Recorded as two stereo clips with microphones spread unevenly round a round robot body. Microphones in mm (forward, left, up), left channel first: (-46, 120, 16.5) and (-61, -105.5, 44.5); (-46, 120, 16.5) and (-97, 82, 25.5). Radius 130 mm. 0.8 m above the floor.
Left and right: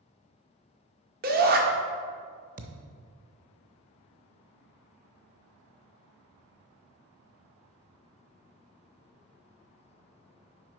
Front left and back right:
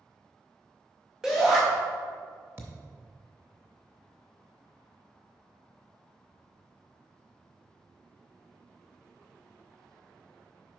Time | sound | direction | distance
1.2 | a shout | 55° right | 1.1 m
2.6 | a thud | 115° right | 0.6 m